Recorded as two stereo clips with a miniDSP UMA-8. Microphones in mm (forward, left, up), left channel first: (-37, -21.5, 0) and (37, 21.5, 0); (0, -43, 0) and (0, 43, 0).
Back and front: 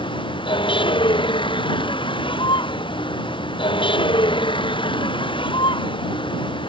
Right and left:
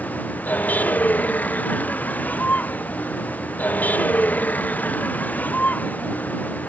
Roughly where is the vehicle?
Behind.